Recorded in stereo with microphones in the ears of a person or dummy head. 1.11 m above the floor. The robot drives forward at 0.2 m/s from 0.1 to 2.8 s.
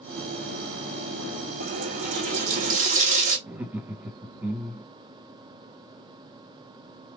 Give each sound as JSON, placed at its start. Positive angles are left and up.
{"t": 1.6, "sound": "a running tap", "side_deg": -55, "distance_m": 0.9}
{"t": 3.5, "sound": "laughter", "side_deg": -5, "distance_m": 0.6}